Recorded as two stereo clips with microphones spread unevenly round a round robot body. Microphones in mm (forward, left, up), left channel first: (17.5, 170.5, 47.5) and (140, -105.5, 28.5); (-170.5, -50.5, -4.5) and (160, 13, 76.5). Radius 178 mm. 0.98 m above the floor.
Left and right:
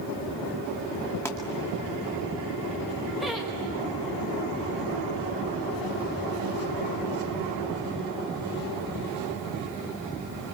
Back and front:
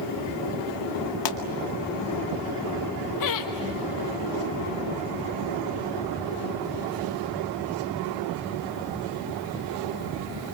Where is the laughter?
155° right, 1.1 m.